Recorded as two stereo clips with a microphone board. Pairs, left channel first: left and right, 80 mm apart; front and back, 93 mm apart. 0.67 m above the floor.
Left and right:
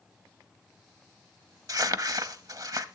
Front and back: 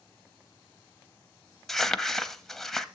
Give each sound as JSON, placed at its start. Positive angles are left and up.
{"t": 1.7, "sound": "crumpling", "azimuth_deg": -85, "distance_m": 0.6}